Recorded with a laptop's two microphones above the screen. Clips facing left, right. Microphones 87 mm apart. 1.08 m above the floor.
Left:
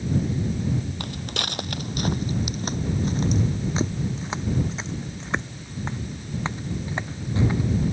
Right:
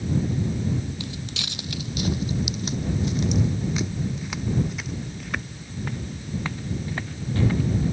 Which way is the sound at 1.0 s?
55° left (ahead or behind).